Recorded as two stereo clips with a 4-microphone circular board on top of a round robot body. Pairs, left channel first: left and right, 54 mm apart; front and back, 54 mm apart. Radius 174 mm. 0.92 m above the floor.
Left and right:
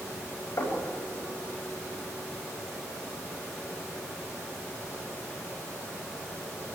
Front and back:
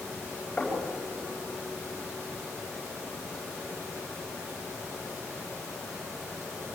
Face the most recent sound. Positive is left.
turn(degrees=75)